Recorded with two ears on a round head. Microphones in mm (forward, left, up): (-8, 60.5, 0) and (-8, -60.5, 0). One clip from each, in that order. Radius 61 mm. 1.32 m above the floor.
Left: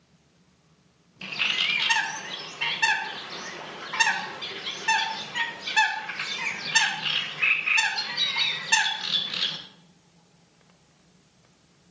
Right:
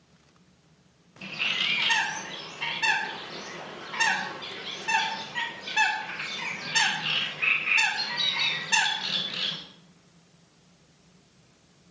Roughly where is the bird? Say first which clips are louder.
Left 2 dB; left.